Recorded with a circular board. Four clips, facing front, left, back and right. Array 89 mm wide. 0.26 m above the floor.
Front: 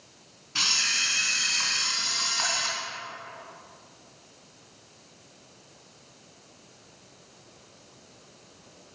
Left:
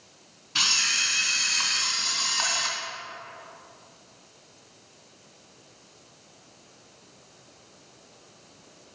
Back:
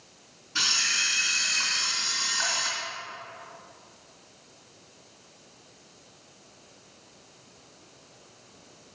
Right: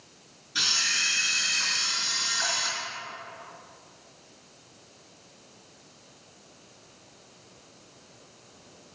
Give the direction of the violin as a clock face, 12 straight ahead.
I don't hear a violin.